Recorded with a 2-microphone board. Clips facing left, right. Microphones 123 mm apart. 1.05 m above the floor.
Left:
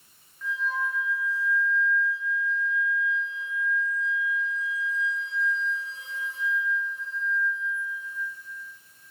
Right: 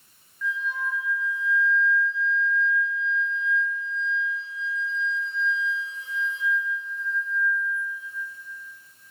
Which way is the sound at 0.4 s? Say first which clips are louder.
Even; 40° left (ahead or behind).